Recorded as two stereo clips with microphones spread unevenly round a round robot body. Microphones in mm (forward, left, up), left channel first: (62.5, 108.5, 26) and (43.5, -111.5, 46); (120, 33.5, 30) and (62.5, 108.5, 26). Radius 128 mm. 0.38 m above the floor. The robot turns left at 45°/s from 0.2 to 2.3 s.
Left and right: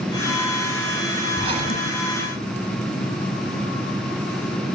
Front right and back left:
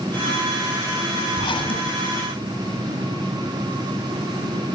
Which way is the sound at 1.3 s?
20° right.